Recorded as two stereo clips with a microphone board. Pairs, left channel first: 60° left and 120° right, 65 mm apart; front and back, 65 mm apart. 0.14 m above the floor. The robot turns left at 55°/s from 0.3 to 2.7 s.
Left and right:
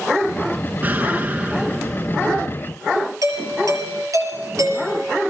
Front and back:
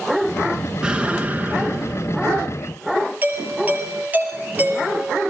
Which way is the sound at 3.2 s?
120° right.